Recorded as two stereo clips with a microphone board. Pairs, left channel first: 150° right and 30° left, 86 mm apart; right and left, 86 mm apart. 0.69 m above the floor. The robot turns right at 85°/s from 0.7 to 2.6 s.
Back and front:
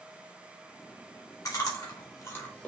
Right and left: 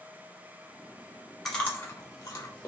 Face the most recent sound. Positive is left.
turn(degrees=-80)